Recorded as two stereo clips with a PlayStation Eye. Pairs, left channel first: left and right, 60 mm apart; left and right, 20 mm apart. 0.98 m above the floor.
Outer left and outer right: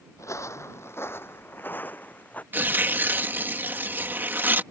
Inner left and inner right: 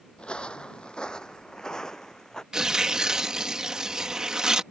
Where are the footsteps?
60° left (ahead or behind); by 2.4 s 25° left (ahead or behind).